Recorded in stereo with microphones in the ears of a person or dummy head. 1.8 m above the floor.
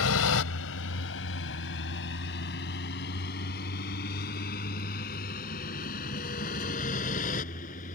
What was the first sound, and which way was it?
A vehicle, 70° left (ahead or behind).